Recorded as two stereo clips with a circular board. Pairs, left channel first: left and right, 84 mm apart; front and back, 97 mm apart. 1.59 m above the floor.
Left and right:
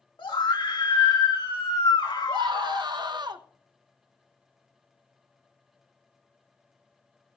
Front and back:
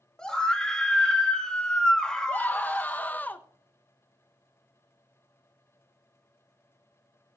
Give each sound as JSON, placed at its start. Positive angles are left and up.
{"t": 0.2, "sound": "a scream", "azimuth_deg": 80, "distance_m": 2.0}
{"t": 2.3, "sound": "a scream", "azimuth_deg": -70, "distance_m": 1.2}